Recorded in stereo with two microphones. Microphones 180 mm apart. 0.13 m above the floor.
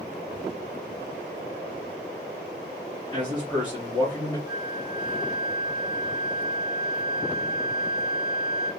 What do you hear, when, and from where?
3.1 s a man speaking: 25° left (ahead or behind), 2 m
4.5 s a flute: 20° right (ahead or behind), 1.0 m